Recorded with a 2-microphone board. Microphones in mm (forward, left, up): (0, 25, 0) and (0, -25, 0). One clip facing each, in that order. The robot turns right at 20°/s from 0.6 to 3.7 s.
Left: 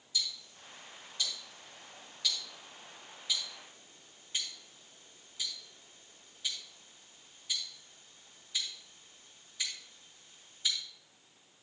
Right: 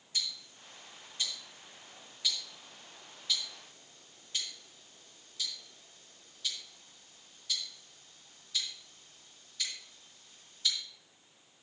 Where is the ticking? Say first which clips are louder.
Left 1 dB; 45° right (ahead or behind), 3.5 m; by 10.8 s 15° left (ahead or behind), 3.5 m.